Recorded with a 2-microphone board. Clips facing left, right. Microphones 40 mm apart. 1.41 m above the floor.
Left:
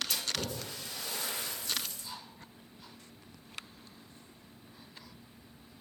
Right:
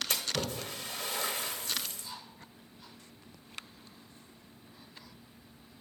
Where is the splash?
50° right (ahead or behind), 1.2 m.